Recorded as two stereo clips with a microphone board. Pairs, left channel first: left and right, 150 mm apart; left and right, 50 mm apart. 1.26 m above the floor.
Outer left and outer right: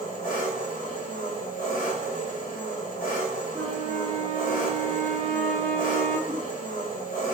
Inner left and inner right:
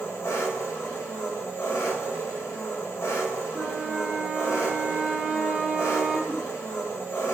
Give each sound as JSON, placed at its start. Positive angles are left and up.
{"t": 0.0, "sound": "an engine running", "side_deg": 65, "distance_m": 0.8}
{"t": 3.5, "sound": "a flute", "side_deg": -20, "distance_m": 0.9}
{"t": 6.3, "sound": "a giggle", "side_deg": -50, "distance_m": 1.3}